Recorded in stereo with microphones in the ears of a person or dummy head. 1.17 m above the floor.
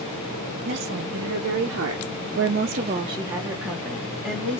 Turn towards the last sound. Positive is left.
turn(degrees=15)  # may be behind; listen again after turning